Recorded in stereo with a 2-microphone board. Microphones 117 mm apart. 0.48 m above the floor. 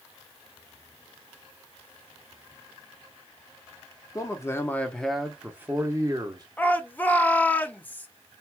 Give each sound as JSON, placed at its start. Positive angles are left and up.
{"t": 4.2, "sound": "a man speaking", "side_deg": 30, "distance_m": 0.9}
{"t": 6.6, "sound": "a shout", "side_deg": 15, "distance_m": 0.7}